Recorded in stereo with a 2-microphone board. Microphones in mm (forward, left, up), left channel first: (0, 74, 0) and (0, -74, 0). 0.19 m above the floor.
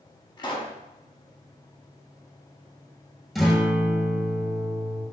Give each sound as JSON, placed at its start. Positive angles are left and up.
{"t": 0.4, "sound": "a pop", "side_deg": 30, "distance_m": 0.6}
{"t": 3.4, "sound": "a guitar", "side_deg": 0, "distance_m": 1.0}